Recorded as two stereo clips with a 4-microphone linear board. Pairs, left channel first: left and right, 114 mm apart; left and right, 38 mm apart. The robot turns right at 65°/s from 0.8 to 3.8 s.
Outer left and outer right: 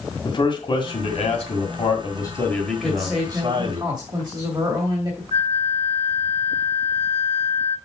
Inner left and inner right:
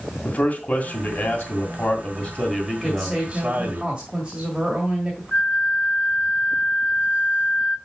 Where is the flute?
50° left (ahead or behind), 0.7 m.